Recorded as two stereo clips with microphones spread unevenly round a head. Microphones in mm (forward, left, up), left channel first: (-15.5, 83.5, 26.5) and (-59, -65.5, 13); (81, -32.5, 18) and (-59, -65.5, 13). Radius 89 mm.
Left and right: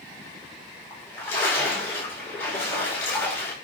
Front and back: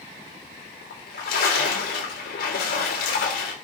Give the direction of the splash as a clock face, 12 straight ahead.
12 o'clock.